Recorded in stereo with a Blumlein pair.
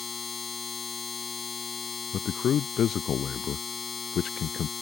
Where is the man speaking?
30° left.